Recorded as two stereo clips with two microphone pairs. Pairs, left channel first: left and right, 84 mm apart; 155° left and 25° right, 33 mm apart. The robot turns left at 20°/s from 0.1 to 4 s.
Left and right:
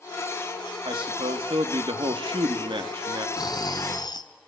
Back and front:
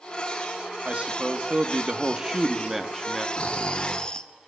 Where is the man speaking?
70° right, 2 m; by 3.3 s 120° right, 2 m.